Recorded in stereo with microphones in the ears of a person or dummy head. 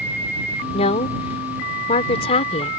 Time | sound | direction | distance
0.7 | a woman speaking | 40° left (ahead or behind) | ?